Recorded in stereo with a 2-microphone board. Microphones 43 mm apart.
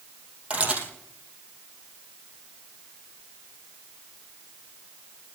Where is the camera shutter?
30° right (ahead or behind), 3.5 m.